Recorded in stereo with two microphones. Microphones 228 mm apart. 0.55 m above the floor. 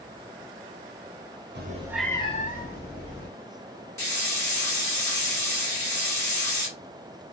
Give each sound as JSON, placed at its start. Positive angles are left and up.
{"t": 1.6, "sound": "a cat meowing", "side_deg": -50, "distance_m": 0.5}
{"t": 4.0, "sound": "a hiss", "side_deg": 10, "distance_m": 1.8}